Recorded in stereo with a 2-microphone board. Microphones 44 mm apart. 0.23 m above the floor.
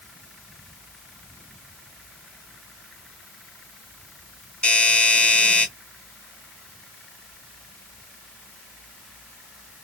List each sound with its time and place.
4.6 s a doorbell: 25° left (ahead or behind), 2.5 m